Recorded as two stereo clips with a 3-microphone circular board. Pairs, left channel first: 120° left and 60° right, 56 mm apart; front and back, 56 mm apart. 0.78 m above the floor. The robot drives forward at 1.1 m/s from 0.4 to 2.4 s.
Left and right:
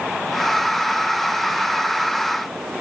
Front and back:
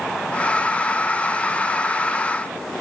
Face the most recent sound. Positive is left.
No sound to turn to.